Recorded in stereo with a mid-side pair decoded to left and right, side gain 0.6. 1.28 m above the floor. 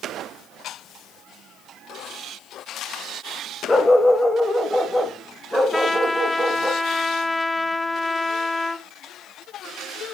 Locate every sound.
3.7 s a dog barking: 15° left, 2.5 m; by 6.7 s 10° right, 4 m
5.7 s a trumpet: 10° left, 1.0 m